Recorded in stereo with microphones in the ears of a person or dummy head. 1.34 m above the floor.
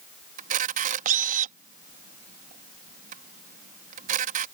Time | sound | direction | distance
0.4 | a camera shutter | 40° right (ahead or behind) | ?